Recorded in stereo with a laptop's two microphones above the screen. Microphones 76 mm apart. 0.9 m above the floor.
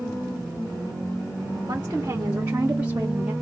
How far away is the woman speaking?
About 1.5 m.